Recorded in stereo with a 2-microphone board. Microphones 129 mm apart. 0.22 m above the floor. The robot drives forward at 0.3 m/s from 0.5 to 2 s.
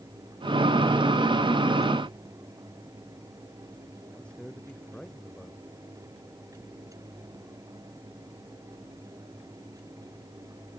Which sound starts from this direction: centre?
A man speaking, at 4.1 s.